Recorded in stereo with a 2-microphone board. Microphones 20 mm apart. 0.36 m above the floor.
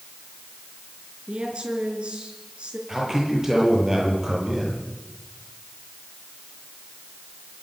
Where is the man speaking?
20° right (ahead or behind), 9 m.